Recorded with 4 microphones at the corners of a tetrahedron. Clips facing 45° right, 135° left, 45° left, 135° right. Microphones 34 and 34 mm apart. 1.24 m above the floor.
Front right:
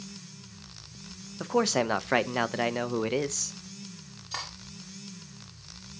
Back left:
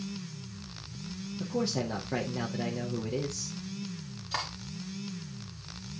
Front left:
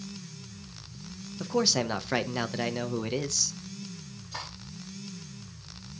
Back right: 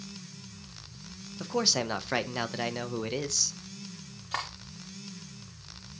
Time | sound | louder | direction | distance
1.4 | a man speaking | front right 6 dB, front left 2 dB | 45° right | 0.6 m
4.3 | cutlery clinking | back left 3 dB, back right 6 dB | 145° right | 1.8 m